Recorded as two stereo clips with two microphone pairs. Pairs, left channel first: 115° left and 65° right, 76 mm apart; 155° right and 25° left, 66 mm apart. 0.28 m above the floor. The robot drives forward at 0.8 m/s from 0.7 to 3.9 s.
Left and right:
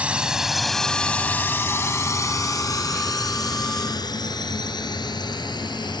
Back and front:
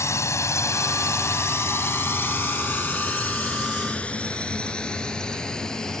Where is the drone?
135° right; by 6.0 s 125° left.